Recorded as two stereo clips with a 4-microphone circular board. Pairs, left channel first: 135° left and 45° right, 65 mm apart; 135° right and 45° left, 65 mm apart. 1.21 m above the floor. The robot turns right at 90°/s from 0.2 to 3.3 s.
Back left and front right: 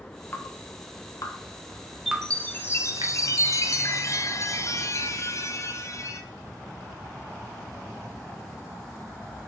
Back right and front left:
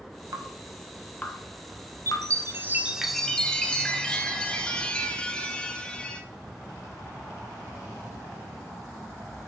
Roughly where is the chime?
Ahead left.